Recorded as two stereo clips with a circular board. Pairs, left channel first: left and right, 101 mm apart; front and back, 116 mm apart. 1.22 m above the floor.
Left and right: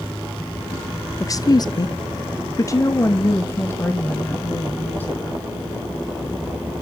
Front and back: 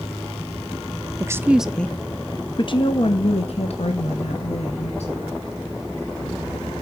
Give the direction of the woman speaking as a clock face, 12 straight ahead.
8 o'clock.